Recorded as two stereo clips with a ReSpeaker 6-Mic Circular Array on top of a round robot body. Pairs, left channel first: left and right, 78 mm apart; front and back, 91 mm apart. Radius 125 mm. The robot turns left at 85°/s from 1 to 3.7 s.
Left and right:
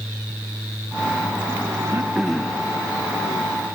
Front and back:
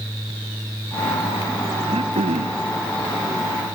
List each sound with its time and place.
1.9 s throat clearing: 145° right; by 2.6 s 145° left